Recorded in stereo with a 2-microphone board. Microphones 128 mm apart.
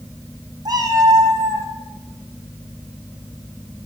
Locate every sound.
0.7 s a cat meowing: 30° right (ahead or behind), 5 m; by 1.7 s 25° right (ahead or behind), 3.5 m